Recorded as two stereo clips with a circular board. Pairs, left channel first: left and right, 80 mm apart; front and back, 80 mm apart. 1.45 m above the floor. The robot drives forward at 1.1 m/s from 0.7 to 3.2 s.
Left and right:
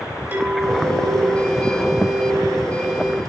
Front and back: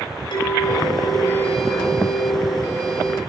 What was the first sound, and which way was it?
A clink, 20° right.